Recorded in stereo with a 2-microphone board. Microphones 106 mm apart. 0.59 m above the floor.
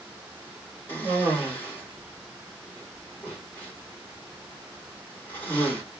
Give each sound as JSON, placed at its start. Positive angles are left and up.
{"t": 0.9, "sound": "a cough", "side_deg": 20, "distance_m": 2.0}